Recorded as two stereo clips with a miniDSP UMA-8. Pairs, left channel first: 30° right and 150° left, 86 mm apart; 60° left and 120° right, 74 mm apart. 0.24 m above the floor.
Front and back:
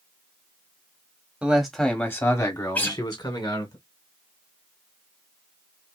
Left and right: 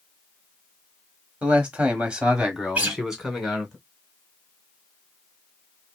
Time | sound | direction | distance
1.4 | a man speaking | 155° right | 1.3 m
2.8 | a guitar | 75° right | 1.2 m